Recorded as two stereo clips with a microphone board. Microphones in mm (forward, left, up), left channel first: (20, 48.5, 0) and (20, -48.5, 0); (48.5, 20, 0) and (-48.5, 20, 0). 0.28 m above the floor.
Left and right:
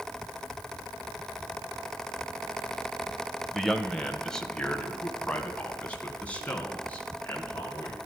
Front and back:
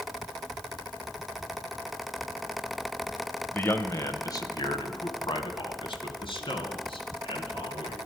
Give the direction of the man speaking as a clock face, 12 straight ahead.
12 o'clock.